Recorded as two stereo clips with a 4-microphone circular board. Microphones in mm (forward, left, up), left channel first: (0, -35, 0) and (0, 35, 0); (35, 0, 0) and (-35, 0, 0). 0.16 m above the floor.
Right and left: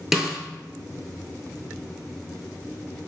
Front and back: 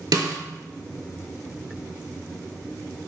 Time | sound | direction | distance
0.1 | a snare drum | 175° left | 0.6 m